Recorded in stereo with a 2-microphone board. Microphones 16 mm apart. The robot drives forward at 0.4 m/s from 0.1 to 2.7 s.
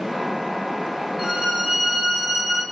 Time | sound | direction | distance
1.2 | a violin | 5° right (ahead or behind) | 2.5 m